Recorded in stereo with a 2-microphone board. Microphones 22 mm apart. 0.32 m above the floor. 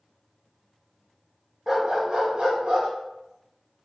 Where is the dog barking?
25° right (ahead or behind), 0.5 m; by 2.9 s 65° right (ahead or behind), 1.2 m.